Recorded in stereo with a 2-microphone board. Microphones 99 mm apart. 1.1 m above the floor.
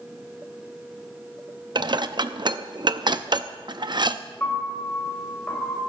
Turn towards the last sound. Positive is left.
turn(degrees=20)  # may be behind; listen again after turning